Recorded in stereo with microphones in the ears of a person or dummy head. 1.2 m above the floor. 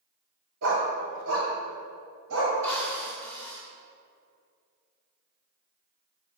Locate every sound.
0.6 s a dog barking: 70° right (ahead or behind), 1.9 m; by 2.5 s 75° right (ahead or behind), 3 m
2.6 s a drill: 10° left (ahead or behind), 2 m